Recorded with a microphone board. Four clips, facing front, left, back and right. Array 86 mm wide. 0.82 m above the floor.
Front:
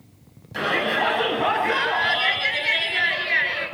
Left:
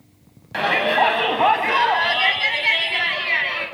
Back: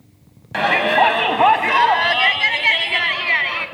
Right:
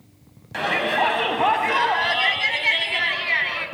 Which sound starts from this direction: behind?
A shout, at 0.5 s.